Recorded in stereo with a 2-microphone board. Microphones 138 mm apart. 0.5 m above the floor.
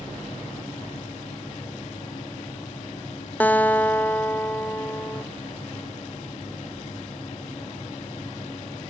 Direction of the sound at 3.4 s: 10° left (ahead or behind).